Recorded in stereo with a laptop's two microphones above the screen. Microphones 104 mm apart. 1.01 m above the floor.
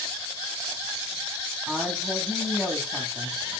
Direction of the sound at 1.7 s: Centre (ahead or behind).